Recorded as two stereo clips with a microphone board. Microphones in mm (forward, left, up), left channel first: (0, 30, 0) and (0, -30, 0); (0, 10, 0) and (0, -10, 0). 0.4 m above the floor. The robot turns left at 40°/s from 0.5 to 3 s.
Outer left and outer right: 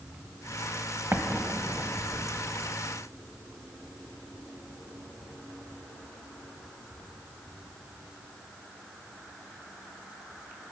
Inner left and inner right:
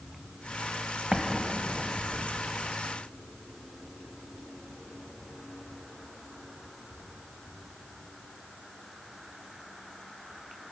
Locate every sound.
1.1 s an explosion: 40° right (ahead or behind), 0.8 m; by 2.2 s centre (ahead or behind), 0.8 m